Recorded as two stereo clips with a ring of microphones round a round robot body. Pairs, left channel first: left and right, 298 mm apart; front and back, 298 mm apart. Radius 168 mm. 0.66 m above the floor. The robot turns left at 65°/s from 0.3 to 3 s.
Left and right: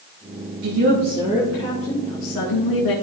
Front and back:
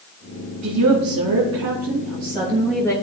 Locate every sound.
0.6 s a woman speaking: 130° right, 3 m; by 2.9 s 80° left, 3 m